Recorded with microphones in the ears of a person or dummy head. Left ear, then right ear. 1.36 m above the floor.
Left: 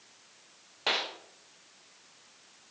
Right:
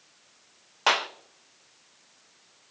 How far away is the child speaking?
No child speaking in this recording.